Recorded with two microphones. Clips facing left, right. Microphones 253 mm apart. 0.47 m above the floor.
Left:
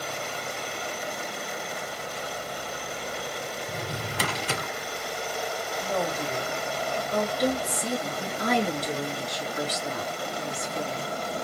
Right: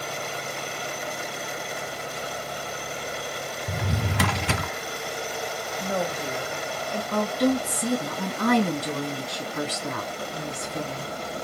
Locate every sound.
3.7 s a drawer: 65° right (ahead or behind), 0.9 m
5.8 s a woman speaking: 15° right (ahead or behind), 2.5 m
7.1 s a woman speaking: 60° right (ahead or behind), 3 m